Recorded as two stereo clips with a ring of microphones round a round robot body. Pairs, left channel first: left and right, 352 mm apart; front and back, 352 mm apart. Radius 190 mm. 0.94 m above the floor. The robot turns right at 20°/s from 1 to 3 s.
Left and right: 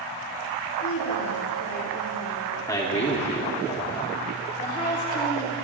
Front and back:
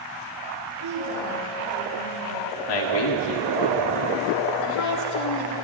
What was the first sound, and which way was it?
A woman speaking, 135° left.